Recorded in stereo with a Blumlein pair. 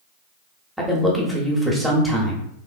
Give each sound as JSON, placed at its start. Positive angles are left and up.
{"t": 0.8, "sound": "a man speaking", "azimuth_deg": 0, "distance_m": 0.9}